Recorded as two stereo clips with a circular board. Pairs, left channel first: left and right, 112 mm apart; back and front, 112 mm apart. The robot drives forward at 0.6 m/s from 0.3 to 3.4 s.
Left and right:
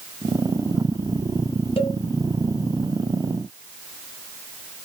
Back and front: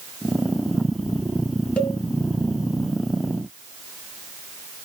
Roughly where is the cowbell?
Left.